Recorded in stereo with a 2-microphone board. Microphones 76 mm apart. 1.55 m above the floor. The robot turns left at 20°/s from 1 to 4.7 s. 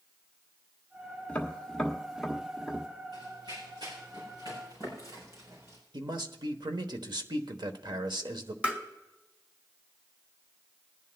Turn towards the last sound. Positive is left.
turn(degrees=-20)  # may be behind; listen again after turning